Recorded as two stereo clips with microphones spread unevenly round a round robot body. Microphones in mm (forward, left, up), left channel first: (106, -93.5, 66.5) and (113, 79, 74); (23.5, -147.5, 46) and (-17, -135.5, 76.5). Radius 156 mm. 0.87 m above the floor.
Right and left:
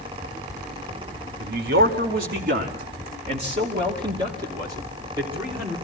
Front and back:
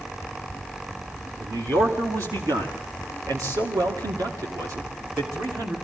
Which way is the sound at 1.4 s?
115° left.